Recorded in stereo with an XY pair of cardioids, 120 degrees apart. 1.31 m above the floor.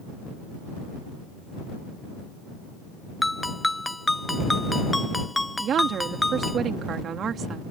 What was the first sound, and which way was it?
A ringtone, 10° left.